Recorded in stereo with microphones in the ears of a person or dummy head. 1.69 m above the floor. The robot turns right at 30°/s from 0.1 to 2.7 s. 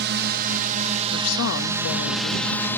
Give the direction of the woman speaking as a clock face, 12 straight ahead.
9 o'clock.